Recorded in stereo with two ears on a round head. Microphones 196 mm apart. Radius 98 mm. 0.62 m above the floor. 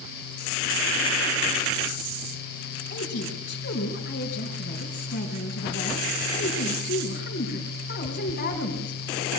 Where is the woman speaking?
45° left (ahead or behind), 4 m.